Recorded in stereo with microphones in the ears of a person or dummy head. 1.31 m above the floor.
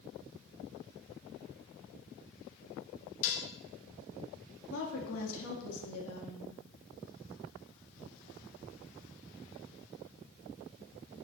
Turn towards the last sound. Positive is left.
turn(degrees=80)